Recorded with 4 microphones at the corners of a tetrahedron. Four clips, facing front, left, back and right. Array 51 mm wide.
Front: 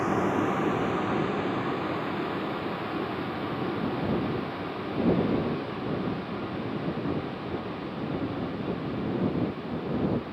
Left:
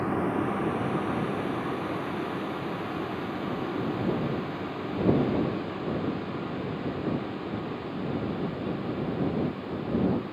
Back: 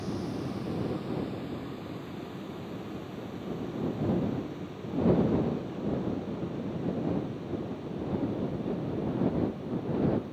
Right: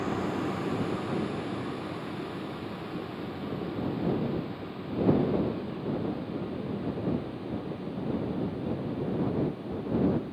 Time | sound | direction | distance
0.0 | a vehicle | 25° left | ?